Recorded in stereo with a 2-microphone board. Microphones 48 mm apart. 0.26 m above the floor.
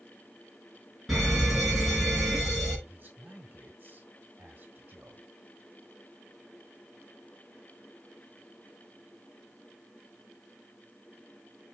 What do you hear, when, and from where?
1.1 s a fire alarm: 5° right (ahead or behind), 5.5 m
2.9 s a man speaking: 30° right (ahead or behind), 1.6 m